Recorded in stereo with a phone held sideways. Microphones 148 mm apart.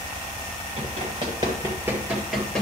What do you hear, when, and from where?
0.8 s running footsteps: 45° right (ahead or behind), 2.5 m; by 2.6 s 5° left (ahead or behind), 1.8 m